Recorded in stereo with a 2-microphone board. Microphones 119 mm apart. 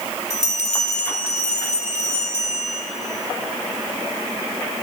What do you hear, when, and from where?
0.3 s a bell: 70° left (ahead or behind), 2.5 m